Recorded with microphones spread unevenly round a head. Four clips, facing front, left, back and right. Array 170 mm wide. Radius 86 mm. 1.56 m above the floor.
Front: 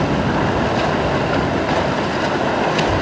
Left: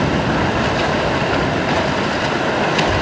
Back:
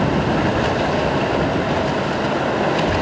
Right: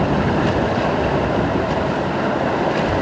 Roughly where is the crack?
I don't hear a crack.